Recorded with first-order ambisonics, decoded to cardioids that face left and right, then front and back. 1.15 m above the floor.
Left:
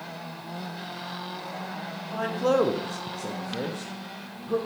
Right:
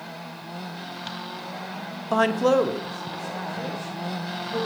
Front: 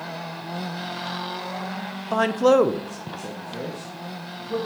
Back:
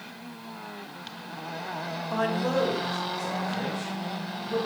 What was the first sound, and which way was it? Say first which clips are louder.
A man speaking: right 5 dB, front 9 dB; 65° right.